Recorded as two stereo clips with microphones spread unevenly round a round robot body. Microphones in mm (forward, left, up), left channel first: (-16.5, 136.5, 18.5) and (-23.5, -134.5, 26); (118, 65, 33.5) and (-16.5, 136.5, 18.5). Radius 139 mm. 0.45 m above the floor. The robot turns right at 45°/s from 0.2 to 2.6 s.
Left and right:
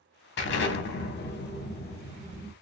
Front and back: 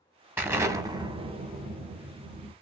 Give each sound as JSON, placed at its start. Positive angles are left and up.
{"t": 0.4, "sound": "an explosion", "azimuth_deg": 90, "distance_m": 1.0}